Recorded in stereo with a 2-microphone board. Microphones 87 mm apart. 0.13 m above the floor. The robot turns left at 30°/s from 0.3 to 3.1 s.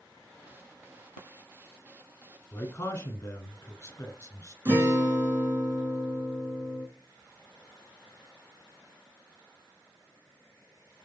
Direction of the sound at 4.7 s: 25° right (ahead or behind).